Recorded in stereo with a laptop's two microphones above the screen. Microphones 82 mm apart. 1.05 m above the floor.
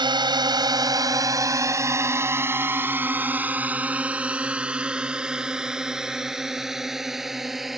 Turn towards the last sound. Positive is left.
turn(degrees=0)  # may be behind; listen again after turning